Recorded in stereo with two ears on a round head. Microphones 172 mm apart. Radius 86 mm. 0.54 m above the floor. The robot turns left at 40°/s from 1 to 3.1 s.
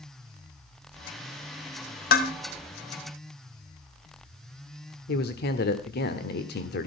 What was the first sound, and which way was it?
Dishes clattering, 50° left (ahead or behind).